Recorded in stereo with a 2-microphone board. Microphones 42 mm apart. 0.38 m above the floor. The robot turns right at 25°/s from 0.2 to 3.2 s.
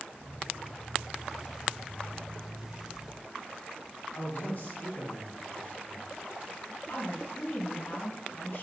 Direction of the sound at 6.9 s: 70° left (ahead or behind).